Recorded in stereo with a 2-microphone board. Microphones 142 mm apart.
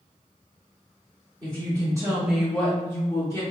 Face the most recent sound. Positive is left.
turn(degrees=25)  # may be behind; listen again after turning